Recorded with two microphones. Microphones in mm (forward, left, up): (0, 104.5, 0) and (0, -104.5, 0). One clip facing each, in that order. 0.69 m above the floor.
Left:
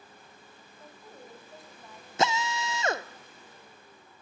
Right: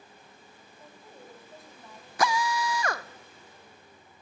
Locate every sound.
0.8 s a woman speaking: centre (ahead or behind), 5 m
2.2 s a drill: 25° left (ahead or behind), 0.6 m